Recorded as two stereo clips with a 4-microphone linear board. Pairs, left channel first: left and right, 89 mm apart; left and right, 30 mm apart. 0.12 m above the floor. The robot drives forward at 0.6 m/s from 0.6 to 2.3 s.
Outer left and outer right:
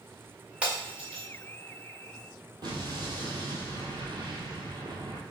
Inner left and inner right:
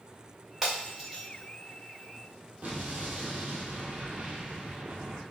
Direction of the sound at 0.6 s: 10° right (ahead or behind).